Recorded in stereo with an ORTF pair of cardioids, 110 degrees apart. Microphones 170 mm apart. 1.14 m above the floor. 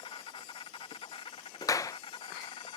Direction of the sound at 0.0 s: 30° left.